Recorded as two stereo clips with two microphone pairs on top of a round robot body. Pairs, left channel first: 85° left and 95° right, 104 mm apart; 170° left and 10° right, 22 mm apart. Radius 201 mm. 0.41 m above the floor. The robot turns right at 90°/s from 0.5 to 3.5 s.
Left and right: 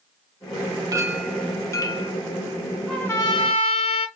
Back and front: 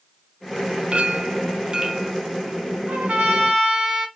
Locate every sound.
0.9 s a clink: 40° right, 0.8 m; by 2.1 s 70° left, 0.8 m
2.9 s a trumpet: 5° left, 1.0 m; by 4.1 s 60° left, 1.0 m